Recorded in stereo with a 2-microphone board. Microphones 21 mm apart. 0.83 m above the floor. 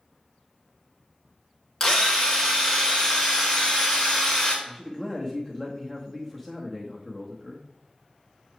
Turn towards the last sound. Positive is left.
turn(degrees=5)  # may be behind; listen again after turning